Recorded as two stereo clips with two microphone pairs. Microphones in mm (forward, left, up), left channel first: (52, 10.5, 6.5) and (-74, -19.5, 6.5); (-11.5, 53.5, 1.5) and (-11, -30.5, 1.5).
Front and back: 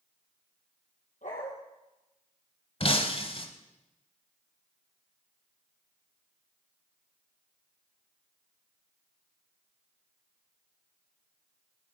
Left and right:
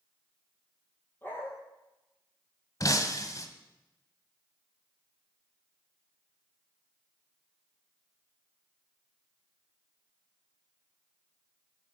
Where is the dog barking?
25° left, 3.5 m.